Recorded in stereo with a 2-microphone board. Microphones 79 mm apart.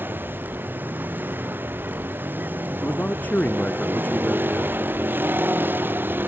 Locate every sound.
0.0 s a vehicle: 25° right (ahead or behind)
2.8 s a man speaking: 20° left (ahead or behind)